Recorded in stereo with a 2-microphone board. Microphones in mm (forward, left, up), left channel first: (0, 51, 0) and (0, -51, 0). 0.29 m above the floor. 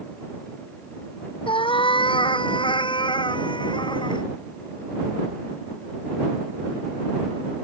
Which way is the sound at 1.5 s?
55° left (ahead or behind).